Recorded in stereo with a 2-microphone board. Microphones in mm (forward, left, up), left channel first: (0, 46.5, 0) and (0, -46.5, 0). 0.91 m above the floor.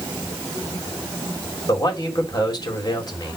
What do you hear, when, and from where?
1.7 s a man speaking: 45° left (ahead or behind), 3 m